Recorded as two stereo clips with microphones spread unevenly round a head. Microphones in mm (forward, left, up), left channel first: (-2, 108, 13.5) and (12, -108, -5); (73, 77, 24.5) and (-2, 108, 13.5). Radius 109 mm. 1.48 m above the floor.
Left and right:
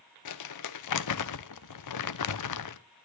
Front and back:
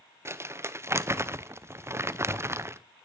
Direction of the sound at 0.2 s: 100° left.